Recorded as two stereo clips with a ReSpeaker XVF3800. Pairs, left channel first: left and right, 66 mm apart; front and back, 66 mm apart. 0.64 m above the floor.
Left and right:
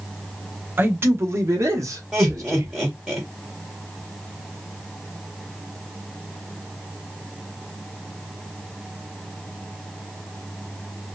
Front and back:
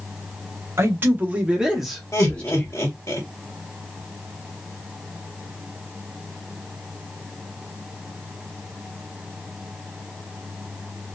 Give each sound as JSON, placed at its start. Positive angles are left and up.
{"t": 0.8, "sound": "a man speaking", "azimuth_deg": -140, "distance_m": 1.0}
{"t": 2.1, "sound": "laughter", "azimuth_deg": -20, "distance_m": 1.0}